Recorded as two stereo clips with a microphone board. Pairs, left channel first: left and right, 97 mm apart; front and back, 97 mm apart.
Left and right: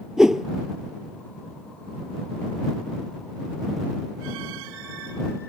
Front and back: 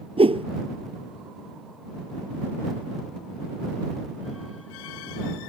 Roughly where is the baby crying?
No baby crying in this recording.